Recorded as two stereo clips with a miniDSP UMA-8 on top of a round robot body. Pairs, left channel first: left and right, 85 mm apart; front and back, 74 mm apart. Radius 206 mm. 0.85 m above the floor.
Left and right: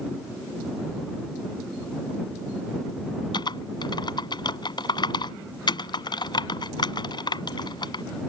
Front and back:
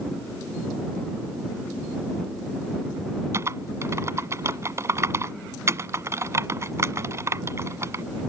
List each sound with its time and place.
3.3 s typing on a keyboard: 125° left